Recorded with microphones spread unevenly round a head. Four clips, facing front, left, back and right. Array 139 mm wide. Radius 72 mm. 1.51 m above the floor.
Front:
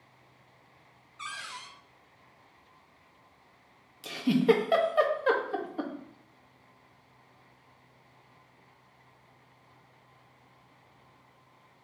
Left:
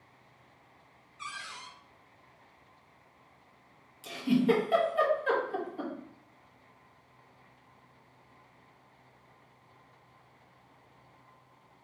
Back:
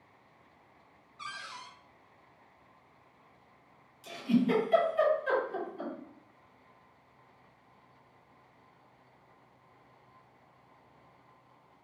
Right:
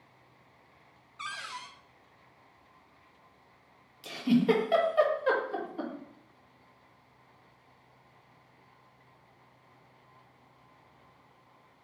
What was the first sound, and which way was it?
A cupboard door, 75° right.